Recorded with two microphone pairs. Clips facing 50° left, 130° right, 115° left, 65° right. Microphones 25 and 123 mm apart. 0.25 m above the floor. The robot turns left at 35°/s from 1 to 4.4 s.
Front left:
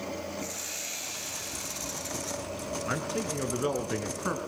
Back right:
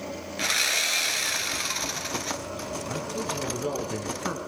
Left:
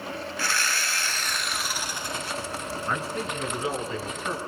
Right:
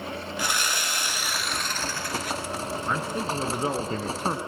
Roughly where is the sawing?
Behind right.